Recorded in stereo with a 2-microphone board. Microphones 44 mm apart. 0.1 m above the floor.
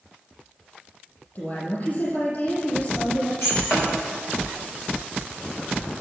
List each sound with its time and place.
1.4 s a woman speaking: 45° left (ahead or behind), 3.5 m
3.4 s breaking glass: 70° left (ahead or behind), 5 m